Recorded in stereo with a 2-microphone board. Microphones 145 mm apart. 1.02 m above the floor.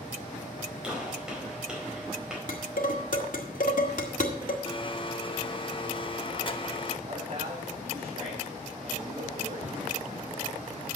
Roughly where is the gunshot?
Centre.